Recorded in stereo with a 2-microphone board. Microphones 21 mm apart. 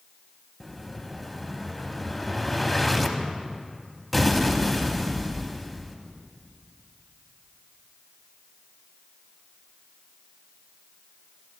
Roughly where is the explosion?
Centre.